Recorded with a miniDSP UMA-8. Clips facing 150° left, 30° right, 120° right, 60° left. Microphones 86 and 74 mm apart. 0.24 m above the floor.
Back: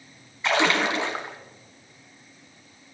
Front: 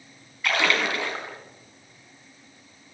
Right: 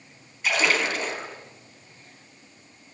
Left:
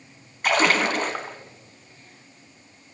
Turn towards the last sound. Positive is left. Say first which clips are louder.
# back 2 dB, left 4 dB
turn(degrees=85)